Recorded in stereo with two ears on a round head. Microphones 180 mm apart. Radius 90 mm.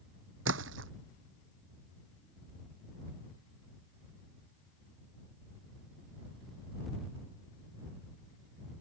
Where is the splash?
70° right (ahead or behind).